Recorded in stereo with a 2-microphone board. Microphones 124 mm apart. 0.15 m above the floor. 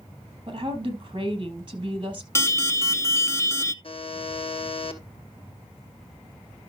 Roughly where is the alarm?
Left.